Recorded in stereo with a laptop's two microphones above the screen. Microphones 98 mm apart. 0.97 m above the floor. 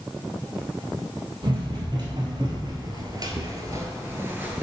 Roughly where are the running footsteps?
Right.